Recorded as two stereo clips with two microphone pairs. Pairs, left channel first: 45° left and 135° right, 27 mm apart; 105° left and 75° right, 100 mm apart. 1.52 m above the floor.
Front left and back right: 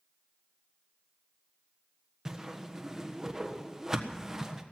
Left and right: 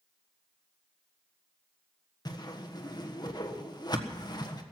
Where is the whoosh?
155° left, 1.3 m.